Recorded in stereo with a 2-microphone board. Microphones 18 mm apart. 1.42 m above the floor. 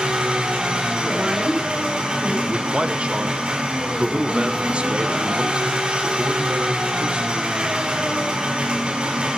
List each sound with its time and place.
0.0 s an engine running: 75° right (ahead or behind), 3.5 m
1.1 s a woman speaking: 5° right (ahead or behind), 5.5 m
2.5 s a man speaking: 80° right, 0.9 m